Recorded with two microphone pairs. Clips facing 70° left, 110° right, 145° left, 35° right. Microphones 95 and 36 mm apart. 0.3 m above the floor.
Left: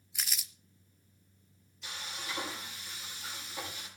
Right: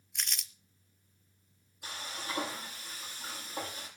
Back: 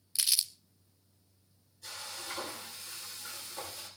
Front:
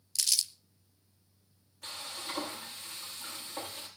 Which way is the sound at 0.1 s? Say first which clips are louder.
Even, even; 155° left.